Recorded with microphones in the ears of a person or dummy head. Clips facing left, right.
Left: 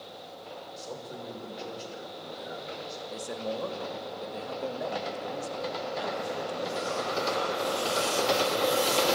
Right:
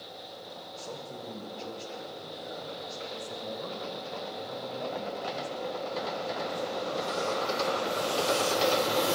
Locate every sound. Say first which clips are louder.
0.8 s a man speaking: even; 20° left (ahead or behind), 6 m
3.1 s a man speaking: left 7 dB; 80° left, 2.5 m